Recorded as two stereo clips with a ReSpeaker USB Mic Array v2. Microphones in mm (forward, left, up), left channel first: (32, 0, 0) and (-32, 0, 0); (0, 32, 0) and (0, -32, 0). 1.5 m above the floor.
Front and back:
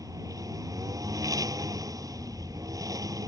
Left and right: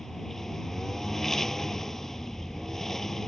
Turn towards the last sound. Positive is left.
turn(degrees=175)